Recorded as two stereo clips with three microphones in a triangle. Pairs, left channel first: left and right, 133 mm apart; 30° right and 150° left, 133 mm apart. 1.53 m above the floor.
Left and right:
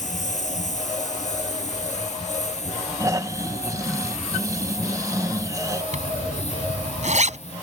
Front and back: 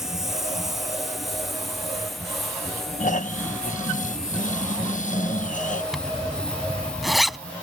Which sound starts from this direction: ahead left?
A lawn mower, at 0.0 s.